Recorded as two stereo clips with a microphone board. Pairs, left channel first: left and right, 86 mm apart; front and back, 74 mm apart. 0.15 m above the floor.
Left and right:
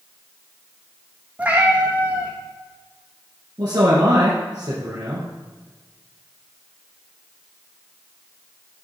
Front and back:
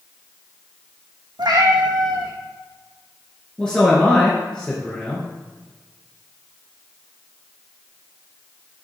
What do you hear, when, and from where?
1.4 s a cat meowing: 165° right, 1.6 m
3.6 s a man speaking: 75° right, 2 m